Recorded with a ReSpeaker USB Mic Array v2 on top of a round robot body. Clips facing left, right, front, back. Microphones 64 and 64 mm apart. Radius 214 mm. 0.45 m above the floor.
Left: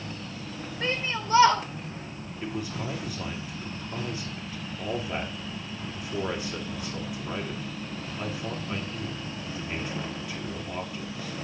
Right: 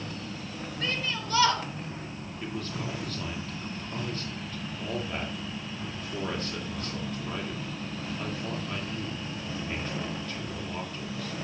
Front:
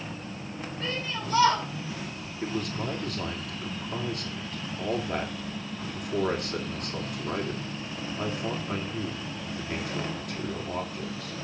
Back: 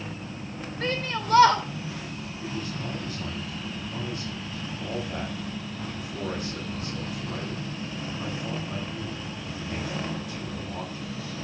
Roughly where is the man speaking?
Ahead.